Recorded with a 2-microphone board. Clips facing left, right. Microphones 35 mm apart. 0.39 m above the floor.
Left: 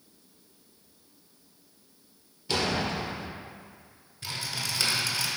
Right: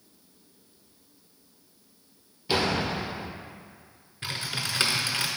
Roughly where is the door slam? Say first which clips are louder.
Right 2 dB; centre.